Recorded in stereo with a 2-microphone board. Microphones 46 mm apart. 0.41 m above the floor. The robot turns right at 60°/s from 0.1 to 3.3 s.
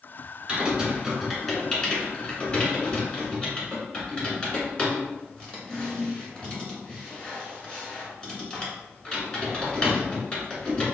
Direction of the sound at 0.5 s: 15° right (ahead or behind).